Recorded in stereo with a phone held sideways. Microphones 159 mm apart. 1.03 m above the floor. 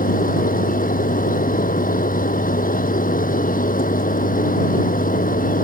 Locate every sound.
0.0 s a machine running: 60° left (ahead or behind)